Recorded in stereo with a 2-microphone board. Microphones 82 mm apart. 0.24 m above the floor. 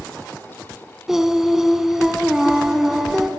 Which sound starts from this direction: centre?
Singing, at 1.1 s.